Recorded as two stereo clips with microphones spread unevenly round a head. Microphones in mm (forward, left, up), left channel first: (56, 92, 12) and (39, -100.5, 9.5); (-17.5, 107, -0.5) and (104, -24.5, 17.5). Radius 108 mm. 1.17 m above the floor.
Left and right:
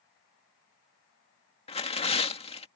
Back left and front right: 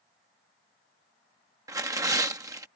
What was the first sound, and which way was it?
Tearing paper, 25° left.